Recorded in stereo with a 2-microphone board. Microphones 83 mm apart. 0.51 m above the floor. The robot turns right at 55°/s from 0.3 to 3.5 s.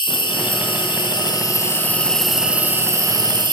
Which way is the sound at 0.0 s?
70° left.